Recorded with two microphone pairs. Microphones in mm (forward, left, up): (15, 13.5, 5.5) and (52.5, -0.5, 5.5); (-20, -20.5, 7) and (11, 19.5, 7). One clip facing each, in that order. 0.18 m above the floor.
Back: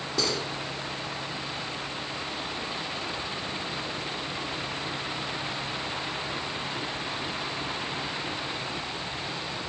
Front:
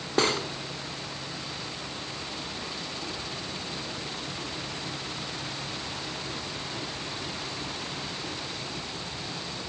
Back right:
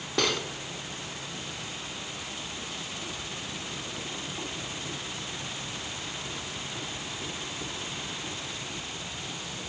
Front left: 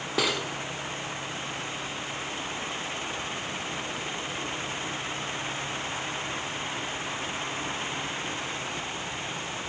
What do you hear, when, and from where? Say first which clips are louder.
0.2 s cutlery clinking: front 5 dB, even; 30° right, 1.1 m